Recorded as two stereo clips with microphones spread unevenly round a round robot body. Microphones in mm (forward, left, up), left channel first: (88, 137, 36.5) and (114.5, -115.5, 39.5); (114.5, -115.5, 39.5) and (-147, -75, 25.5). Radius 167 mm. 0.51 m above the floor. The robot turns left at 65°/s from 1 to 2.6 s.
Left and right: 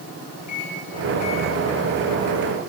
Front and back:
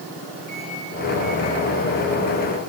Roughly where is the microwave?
Left.